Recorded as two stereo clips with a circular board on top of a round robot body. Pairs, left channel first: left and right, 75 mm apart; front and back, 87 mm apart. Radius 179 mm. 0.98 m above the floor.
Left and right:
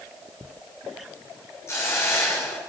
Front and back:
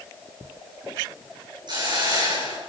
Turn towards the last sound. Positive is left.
turn(degrees=145)